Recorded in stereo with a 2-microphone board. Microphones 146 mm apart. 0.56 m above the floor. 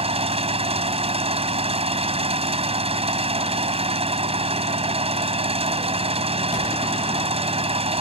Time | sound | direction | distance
0.0 | an engine running | 45° right (ahead or behind) | ?